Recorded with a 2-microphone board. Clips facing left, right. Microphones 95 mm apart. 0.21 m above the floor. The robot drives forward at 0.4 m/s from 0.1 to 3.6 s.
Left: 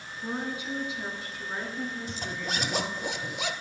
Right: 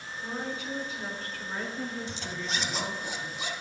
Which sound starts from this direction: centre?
A woman speaking, at 0.2 s.